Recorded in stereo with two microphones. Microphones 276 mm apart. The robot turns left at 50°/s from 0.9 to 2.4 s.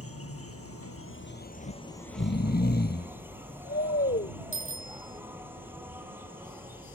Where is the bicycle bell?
50° left (ahead or behind).